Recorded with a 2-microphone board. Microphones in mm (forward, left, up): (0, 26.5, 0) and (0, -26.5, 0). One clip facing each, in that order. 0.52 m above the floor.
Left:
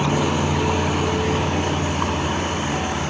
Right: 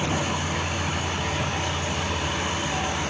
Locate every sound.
0.0 s a vehicle: 80° left; by 3.1 s 35° left (ahead or behind)